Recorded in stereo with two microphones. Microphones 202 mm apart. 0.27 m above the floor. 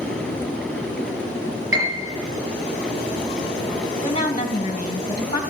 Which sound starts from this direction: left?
A woman speaking, at 4.0 s.